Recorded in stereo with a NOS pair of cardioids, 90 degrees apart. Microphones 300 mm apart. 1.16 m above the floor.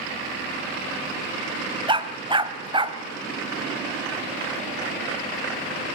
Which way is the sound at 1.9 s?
15° right.